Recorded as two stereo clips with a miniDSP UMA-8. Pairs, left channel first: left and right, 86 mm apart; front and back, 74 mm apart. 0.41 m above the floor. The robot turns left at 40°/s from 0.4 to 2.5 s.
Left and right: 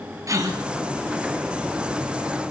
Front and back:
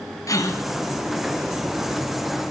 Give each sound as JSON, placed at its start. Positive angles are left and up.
{"t": 0.3, "sound": "a gasp", "azimuth_deg": -40, "distance_m": 2.5}